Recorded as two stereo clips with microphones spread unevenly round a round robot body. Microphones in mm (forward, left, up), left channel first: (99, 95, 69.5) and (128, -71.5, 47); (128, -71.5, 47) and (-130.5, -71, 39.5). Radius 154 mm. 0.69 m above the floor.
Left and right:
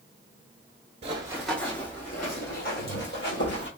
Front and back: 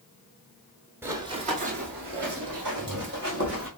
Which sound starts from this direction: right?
Running footsteps, at 1.0 s.